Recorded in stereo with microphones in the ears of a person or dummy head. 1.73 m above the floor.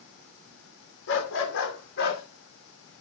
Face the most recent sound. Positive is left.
turn(degrees=45)  # may be behind; listen again after turning